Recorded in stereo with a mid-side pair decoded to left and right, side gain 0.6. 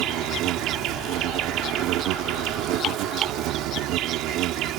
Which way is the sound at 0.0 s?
65° right.